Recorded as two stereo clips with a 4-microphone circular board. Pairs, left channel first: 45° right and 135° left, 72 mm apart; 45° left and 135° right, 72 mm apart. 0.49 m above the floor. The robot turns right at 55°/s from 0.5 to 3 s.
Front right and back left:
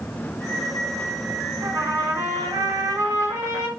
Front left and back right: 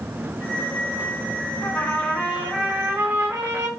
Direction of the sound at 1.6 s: 90° left.